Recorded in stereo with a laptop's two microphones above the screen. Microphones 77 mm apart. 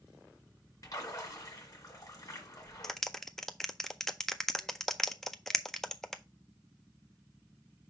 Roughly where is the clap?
Centre.